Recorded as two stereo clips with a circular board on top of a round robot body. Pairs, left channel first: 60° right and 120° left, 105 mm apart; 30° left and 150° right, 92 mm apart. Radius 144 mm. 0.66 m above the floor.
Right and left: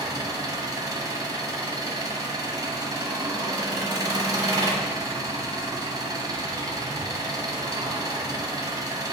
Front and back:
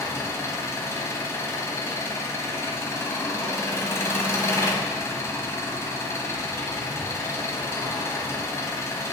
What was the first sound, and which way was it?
An engine running, 80° left.